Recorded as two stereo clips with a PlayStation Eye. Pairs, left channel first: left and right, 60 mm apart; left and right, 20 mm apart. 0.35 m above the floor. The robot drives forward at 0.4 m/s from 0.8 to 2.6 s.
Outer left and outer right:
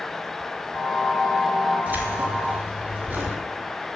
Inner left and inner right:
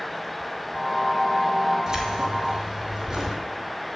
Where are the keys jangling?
30° right (ahead or behind), 3 m.